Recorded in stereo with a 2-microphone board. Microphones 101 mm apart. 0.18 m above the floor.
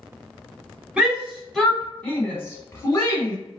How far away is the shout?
About 1.1 m.